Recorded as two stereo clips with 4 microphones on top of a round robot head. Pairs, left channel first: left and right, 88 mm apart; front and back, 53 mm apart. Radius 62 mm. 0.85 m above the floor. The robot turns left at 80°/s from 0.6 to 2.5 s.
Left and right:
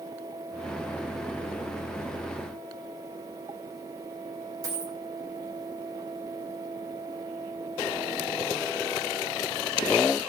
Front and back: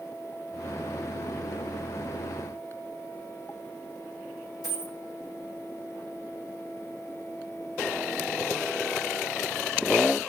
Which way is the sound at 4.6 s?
40° right.